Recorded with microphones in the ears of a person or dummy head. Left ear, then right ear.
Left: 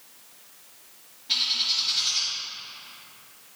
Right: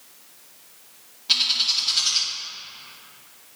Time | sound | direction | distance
1.3 | a bird | 50° right (ahead or behind) | 1.1 m